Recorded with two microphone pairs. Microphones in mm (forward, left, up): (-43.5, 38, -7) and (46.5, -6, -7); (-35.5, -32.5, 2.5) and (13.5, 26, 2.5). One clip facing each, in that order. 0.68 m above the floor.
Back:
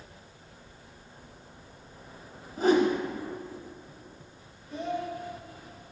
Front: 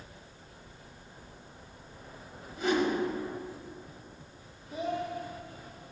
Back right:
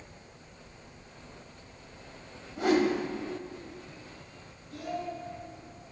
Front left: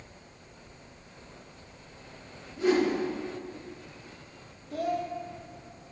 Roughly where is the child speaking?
Ahead left.